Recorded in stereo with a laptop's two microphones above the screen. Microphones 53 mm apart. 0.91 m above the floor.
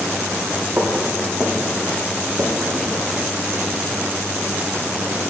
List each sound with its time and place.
0.8 s footsteps: 45° right (ahead or behind), 1.6 m; by 2.9 s 65° right (ahead or behind), 2.5 m